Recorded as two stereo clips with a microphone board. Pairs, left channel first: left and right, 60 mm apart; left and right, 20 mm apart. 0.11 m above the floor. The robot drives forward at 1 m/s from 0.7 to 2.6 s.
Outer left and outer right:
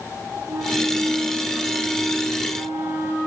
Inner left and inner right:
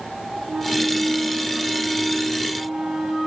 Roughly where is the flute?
Right.